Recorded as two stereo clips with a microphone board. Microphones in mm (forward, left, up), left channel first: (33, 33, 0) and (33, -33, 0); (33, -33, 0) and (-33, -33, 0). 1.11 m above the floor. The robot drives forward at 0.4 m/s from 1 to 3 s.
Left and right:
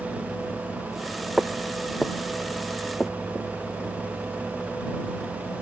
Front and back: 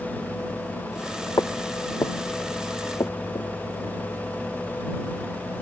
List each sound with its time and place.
1.4 s footsteps: 5° right; by 3.5 s 5° left